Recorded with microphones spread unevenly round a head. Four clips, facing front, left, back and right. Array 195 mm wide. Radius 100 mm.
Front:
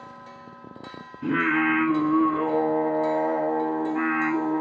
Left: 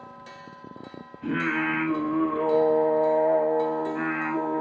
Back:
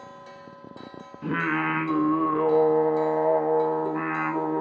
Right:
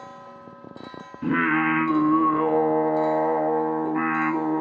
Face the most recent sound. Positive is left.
turn(degrees=-85)